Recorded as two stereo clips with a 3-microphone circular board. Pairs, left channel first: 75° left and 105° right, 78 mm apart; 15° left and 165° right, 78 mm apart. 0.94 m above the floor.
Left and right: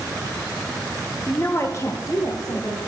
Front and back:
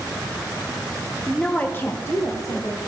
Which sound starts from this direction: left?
A woman speaking, at 1.3 s.